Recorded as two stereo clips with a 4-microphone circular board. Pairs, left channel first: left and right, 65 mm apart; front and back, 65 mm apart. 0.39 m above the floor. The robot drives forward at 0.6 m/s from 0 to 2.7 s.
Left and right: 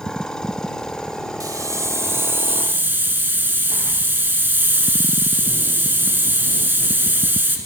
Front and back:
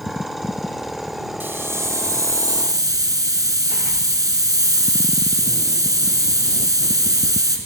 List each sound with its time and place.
1.4 s a hiss: 120° right, 0.7 m; by 7.6 s 150° right, 1.3 m